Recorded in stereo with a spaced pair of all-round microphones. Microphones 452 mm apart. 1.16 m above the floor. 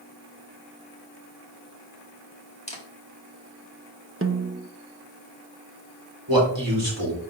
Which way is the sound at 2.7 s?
15° left (ahead or behind).